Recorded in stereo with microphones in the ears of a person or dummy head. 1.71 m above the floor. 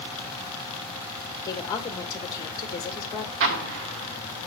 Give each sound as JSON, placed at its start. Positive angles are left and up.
{"t": 1.4, "sound": "a woman speaking", "side_deg": 20, "distance_m": 1.7}
{"t": 3.4, "sound": "an explosion", "side_deg": -60, "distance_m": 0.7}